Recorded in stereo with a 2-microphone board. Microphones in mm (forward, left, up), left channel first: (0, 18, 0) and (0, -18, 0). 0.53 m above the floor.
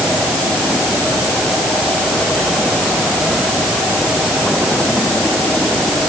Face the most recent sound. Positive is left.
No sound to turn to.